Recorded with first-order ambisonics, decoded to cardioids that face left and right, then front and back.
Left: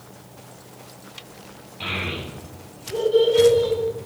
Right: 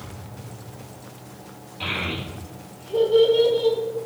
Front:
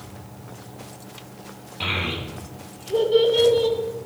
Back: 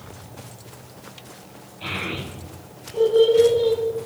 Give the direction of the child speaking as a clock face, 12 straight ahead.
12 o'clock.